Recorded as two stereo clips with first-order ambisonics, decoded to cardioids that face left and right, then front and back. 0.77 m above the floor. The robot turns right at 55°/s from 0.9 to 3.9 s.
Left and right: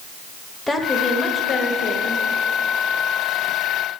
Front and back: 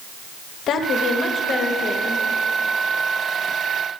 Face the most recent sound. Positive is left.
turn(degrees=175)